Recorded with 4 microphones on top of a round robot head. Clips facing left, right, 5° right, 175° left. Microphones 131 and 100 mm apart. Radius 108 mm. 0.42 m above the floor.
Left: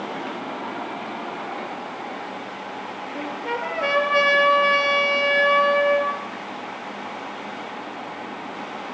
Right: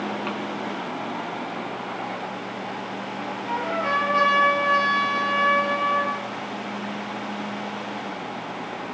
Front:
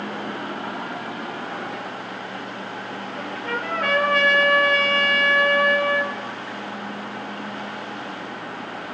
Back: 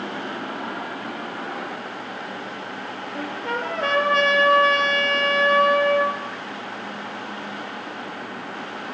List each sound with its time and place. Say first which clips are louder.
3.1 s a trumpet: left 2 dB, back 2 dB; 110° left, 6.5 m